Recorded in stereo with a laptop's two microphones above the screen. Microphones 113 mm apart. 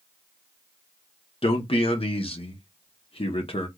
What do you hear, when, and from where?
1.4 s a man speaking: 55° left (ahead or behind), 0.9 m